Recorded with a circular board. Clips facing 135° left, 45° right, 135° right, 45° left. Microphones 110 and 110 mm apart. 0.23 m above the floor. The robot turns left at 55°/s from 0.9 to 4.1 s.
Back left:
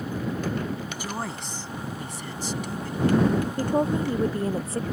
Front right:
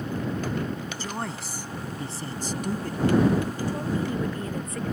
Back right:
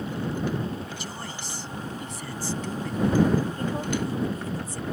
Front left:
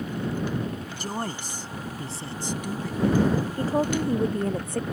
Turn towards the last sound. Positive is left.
turn(degrees=75)